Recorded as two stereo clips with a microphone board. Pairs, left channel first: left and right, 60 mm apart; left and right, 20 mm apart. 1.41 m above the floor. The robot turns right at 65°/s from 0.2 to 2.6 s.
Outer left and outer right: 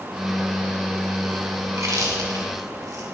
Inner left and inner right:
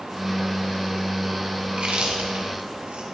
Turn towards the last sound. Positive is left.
turn(degrees=-65)  # may be behind; listen again after turning